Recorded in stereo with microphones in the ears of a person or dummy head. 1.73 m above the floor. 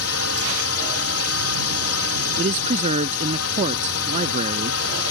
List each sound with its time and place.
0.0 s a drone: 70° left (ahead or behind)
2.4 s a man speaking: 35° right (ahead or behind)